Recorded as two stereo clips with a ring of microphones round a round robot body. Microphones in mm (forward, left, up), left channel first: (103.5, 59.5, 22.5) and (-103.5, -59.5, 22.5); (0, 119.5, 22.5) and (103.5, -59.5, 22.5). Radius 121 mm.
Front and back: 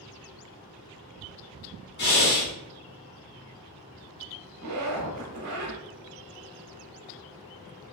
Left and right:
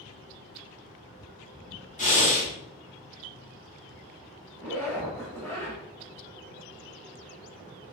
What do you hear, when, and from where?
2.0 s breathing: 70° left, 1.4 m
4.6 s a zipper: 160° right, 0.9 m